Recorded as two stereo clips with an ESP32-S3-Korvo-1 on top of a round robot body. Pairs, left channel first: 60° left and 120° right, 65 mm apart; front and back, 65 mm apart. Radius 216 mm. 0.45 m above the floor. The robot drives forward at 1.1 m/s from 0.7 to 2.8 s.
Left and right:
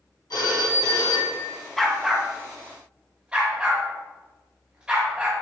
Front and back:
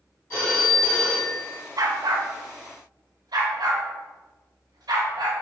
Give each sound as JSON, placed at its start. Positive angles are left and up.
{"t": 0.3, "sound": "a phone ringing", "azimuth_deg": 50, "distance_m": 3.0}
{"t": 1.8, "sound": "a dog barking", "azimuth_deg": 145, "distance_m": 0.9}